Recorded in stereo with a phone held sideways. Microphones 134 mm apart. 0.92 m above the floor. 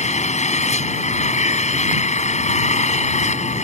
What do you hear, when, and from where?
0.0 s an engine running: 55° left (ahead or behind)